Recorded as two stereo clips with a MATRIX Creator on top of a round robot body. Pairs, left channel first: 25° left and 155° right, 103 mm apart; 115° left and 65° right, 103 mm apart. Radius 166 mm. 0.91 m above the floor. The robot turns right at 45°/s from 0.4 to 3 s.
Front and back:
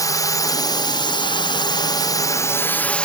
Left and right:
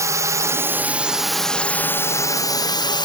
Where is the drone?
20° right; by 3.0 s 100° left.